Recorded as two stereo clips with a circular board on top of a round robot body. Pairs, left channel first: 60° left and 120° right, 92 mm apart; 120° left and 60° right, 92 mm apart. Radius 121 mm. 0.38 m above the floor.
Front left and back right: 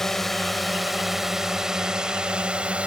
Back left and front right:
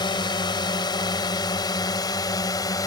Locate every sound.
0.0 s a drone: 145° left; by 2.9 s 165° left